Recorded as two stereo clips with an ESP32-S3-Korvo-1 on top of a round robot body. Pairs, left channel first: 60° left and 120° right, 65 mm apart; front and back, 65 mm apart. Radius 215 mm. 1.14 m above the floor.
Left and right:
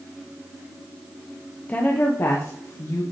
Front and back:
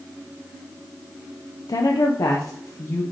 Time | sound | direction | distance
1.7 | a woman speaking | 5° right | 0.7 m